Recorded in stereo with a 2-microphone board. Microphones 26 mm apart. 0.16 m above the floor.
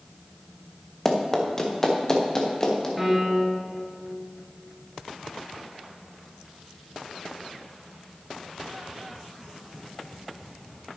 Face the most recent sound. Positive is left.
turn(degrees=0)  # may be behind; listen again after turning